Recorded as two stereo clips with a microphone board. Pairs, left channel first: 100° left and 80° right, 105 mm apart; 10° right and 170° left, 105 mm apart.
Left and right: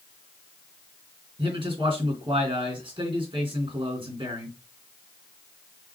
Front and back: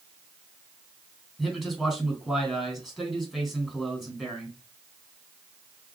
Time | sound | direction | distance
1.4 | a man speaking | 100° right | 3 m